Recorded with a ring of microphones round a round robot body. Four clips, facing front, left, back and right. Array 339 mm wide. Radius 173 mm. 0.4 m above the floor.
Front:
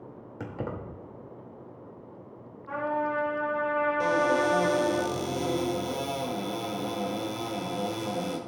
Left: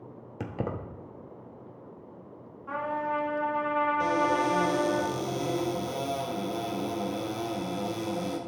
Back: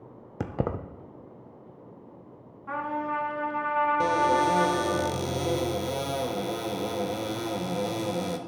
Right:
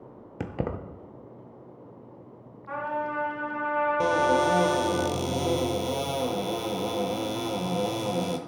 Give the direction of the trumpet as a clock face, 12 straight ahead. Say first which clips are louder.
Even, front 1 dB; 6 o'clock.